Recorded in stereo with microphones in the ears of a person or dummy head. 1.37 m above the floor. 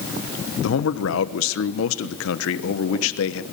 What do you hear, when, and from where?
0.6 s a man speaking: 70° left (ahead or behind), 1.2 m